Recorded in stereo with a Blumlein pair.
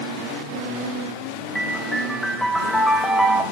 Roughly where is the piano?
Ahead.